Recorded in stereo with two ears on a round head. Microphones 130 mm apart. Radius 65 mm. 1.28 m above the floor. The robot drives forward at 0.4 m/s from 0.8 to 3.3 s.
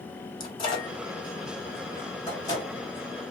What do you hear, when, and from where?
0.4 s a microwave: 30° left (ahead or behind), 2.5 m; by 2.7 s 25° left (ahead or behind), 3 m